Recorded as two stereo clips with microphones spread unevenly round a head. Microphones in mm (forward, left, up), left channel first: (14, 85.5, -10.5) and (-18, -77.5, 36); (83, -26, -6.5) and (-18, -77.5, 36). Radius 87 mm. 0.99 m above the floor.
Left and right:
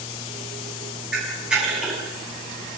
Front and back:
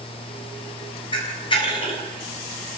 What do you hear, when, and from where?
1.1 s a camera shutter: 15° right, 6.5 m